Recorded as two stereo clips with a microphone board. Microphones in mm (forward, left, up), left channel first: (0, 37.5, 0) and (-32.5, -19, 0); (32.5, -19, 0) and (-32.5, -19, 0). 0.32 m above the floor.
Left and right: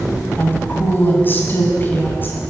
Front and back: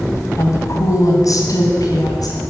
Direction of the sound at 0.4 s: 15° left.